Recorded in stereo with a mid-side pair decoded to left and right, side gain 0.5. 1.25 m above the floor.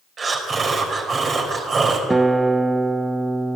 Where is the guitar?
15° right, 0.6 m.